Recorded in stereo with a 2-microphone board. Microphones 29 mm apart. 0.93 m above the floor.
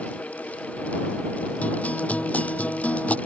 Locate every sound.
1.6 s a guitar: 60° left (ahead or behind)